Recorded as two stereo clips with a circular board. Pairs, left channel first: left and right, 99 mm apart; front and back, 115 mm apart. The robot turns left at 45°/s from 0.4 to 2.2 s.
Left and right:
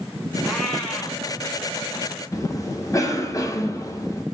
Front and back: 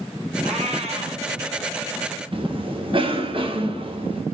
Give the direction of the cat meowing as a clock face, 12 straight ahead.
6 o'clock.